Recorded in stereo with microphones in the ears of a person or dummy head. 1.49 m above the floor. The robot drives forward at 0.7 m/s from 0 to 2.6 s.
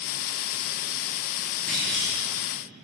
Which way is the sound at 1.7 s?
5° left (ahead or behind).